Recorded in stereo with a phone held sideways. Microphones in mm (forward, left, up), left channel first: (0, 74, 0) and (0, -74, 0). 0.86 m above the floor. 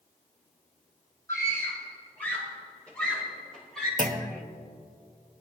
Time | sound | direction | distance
1.3 | a scream | 20° left (ahead or behind) | 5.5 m
4.0 | a clunk | 65° right (ahead or behind) | 1.1 m